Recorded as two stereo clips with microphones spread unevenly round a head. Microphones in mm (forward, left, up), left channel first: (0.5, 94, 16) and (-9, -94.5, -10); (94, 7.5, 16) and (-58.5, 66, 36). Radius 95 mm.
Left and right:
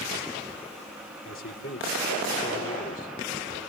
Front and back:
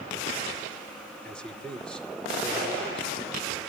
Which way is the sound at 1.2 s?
65° left.